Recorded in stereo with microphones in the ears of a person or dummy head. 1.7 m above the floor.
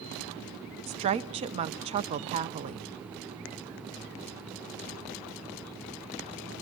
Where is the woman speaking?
30° right (ahead or behind), 0.8 m.